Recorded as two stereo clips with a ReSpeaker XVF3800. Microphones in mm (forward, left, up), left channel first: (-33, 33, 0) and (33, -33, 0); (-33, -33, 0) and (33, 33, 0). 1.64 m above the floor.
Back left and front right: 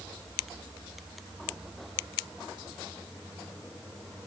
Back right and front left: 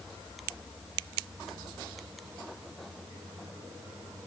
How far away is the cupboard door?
No cupboard door in this recording.